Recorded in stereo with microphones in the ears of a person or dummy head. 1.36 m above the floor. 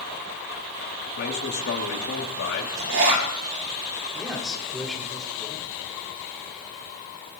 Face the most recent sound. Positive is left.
turn(degrees=0)  # may be behind; listen again after turning